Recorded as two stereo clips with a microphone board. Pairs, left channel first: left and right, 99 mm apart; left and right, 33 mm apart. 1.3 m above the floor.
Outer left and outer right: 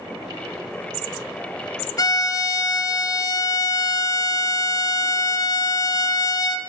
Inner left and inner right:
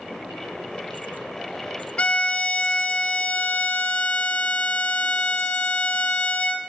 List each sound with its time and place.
2.0 s a violin: 40° left (ahead or behind), 0.5 m